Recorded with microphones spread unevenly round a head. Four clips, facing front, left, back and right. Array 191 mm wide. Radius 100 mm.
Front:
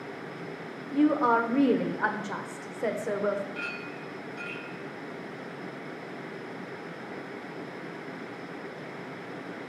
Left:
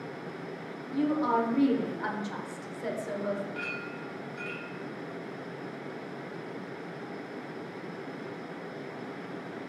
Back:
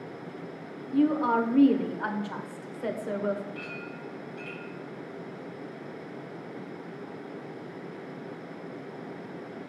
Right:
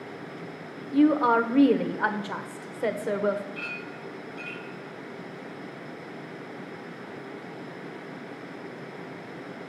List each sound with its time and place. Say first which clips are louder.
0.9 s a woman speaking: right 7 dB, front 1 dB; 50° right, 1.0 m
3.5 s a clink: left 1 dB, front 2 dB; 45° left, 4 m